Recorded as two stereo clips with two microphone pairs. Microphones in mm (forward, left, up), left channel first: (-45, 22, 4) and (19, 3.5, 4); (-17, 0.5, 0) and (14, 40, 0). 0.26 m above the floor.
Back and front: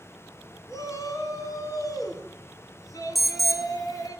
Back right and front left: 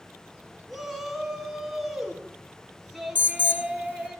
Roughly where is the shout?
Behind left.